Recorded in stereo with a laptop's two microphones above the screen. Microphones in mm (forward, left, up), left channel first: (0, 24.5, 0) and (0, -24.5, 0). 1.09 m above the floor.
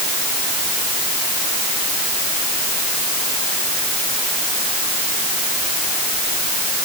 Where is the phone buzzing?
I don't hear a phone buzzing.